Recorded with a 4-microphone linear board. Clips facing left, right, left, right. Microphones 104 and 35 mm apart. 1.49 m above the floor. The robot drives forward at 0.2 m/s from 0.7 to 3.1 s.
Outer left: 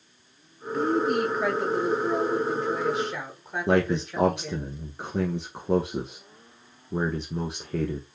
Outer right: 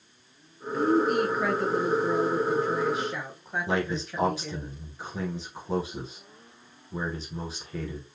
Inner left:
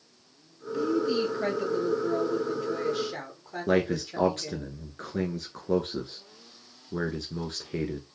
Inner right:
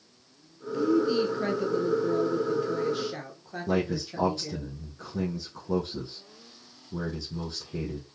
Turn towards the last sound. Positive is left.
turn(degrees=50)  # may be behind; listen again after turning